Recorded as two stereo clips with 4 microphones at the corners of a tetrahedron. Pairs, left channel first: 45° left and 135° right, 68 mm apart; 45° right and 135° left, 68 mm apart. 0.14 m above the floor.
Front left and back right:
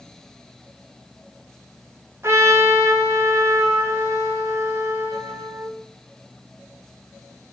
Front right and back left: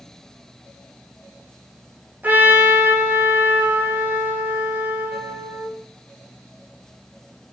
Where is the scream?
No scream in this recording.